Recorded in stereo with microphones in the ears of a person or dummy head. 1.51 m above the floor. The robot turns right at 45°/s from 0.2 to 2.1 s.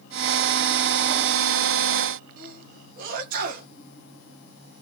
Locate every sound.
2.4 s a sneeze: 50° right (ahead or behind), 1.7 m